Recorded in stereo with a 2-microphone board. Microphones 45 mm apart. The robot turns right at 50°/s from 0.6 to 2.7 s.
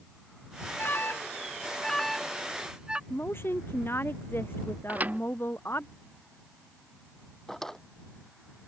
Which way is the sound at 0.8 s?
45° left (ahead or behind).